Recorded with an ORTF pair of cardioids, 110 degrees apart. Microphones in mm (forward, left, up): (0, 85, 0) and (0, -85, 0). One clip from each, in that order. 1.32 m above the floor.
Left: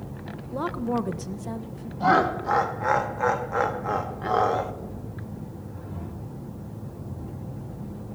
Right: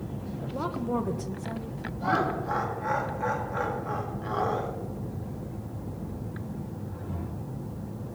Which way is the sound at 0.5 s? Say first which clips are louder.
Left 3 dB; 20° left.